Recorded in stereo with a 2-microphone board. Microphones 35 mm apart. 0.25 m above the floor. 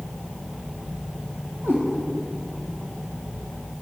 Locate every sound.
1.6 s a cat meowing: 75° right (ahead or behind), 4.5 m